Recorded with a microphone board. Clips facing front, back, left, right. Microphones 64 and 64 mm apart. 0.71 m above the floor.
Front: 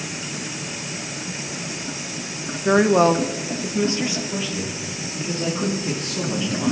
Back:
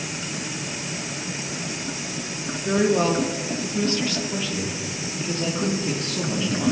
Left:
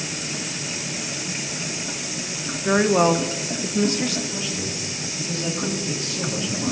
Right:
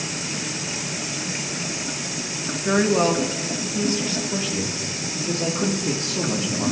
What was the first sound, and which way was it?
A woman speaking, 10° left.